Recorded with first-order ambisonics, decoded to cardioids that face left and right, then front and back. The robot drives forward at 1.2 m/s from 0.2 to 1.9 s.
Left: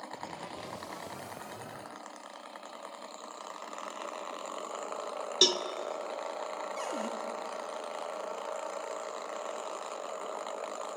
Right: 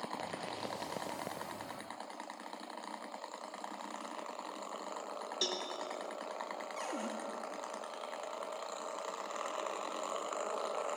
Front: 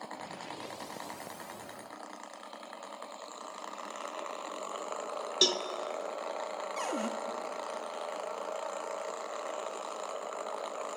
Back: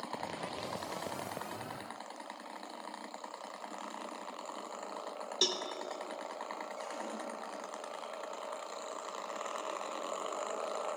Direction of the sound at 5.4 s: 65° left.